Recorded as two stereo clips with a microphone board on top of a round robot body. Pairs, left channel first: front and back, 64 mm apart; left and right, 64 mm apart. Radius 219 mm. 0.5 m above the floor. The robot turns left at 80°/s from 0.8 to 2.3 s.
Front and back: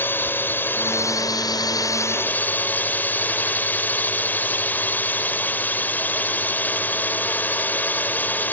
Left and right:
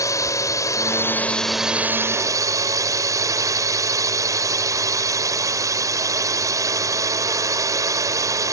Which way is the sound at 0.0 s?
60° left.